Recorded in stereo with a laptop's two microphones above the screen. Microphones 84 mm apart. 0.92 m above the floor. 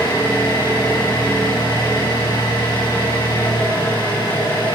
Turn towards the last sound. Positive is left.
turn(degrees=85)